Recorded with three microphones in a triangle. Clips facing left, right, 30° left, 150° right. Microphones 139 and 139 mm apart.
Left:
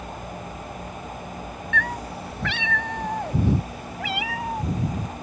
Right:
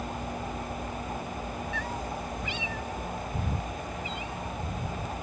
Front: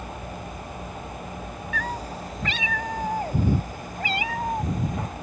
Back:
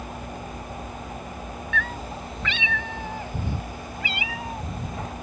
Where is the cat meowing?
80° left; by 5.1 s 75° left.